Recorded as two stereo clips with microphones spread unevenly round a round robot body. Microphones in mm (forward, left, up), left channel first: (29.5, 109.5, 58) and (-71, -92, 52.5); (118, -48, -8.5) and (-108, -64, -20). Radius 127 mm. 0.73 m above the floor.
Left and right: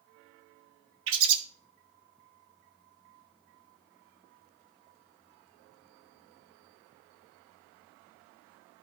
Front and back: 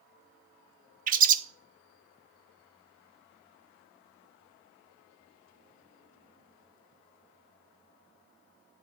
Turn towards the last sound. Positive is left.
turn(degrees=-130)